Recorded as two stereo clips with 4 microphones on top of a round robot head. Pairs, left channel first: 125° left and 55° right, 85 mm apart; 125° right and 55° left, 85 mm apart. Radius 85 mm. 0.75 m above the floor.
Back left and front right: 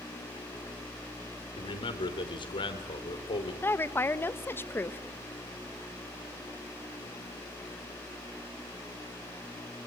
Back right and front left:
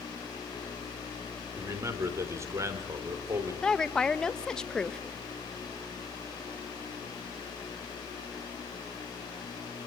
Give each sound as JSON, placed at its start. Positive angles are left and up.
{"t": 1.6, "sound": "a man speaking", "azimuth_deg": 110, "distance_m": 3.5}
{"t": 3.6, "sound": "a woman speaking", "azimuth_deg": 160, "distance_m": 1.0}